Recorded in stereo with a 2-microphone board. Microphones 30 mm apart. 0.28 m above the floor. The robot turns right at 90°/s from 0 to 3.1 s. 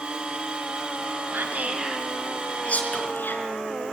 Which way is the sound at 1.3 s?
70° right (ahead or behind).